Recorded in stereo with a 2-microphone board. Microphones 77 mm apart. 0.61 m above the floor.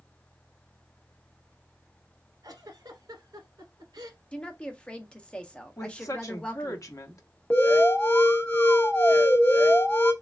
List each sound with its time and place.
2.4 s a giggle: 70° right (ahead or behind), 1.1 m
4.3 s a woman speaking: 15° left (ahead or behind), 0.6 m
5.8 s a woman speaking: 45° left (ahead or behind), 0.8 m
7.5 s an alarm: 25° left (ahead or behind), 0.9 m